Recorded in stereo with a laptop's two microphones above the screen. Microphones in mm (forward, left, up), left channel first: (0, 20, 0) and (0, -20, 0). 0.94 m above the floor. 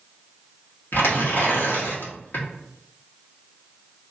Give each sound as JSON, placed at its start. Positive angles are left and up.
{"t": 0.9, "sound": "tearing paper", "side_deg": 65, "distance_m": 1.0}